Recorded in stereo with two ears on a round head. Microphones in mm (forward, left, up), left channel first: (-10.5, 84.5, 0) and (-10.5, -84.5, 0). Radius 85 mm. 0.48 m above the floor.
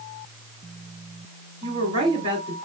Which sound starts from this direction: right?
A woman speaking, at 1.6 s.